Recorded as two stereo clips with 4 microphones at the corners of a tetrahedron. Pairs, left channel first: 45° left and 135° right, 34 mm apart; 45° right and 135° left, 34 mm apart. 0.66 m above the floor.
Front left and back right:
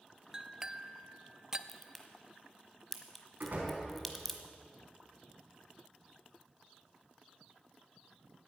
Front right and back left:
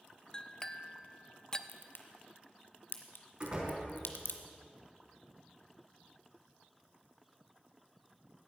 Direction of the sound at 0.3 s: 85° right.